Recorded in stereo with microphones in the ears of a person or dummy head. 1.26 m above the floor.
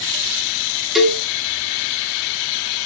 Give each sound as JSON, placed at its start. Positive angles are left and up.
{"t": 0.9, "sound": "a cowbell", "side_deg": 0, "distance_m": 2.0}